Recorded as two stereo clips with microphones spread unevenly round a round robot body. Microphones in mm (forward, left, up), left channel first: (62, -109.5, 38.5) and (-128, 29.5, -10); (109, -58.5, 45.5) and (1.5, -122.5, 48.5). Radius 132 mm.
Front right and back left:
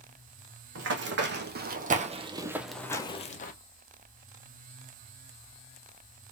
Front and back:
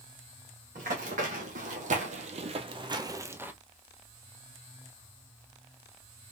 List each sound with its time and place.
0.8 s running footsteps: straight behind, 1.2 m; by 3.5 s 75° right, 0.7 m